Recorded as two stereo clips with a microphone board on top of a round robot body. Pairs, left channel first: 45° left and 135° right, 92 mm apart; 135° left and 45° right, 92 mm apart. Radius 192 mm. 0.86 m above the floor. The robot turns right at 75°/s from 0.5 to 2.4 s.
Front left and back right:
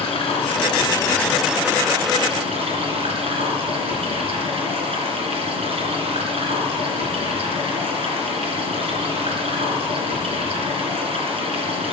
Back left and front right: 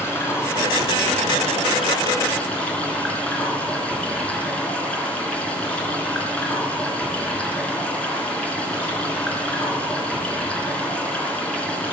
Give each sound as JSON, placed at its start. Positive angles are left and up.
{"t": 0.0, "sound": "running water", "azimuth_deg": 70, "distance_m": 3.0}